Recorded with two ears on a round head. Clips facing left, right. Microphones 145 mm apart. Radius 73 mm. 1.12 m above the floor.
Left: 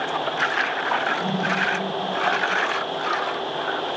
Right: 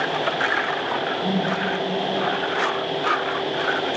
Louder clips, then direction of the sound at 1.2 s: Right 2 dB; 75° left (ahead or behind).